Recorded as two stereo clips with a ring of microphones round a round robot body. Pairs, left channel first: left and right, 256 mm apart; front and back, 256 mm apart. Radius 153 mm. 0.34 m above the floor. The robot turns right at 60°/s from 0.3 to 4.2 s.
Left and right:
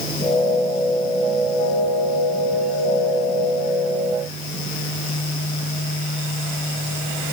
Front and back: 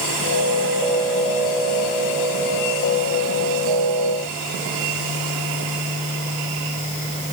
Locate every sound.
Only background noise.